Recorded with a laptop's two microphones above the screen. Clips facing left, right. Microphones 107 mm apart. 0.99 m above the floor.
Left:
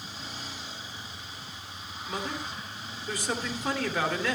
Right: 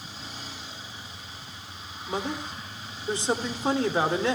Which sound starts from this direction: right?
A man speaking, at 2.1 s.